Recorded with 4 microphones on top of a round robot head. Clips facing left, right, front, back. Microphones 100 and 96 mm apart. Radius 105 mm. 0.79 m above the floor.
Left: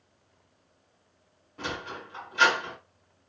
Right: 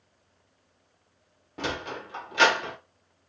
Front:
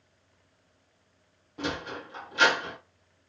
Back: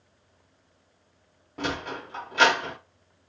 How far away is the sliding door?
About 0.6 m.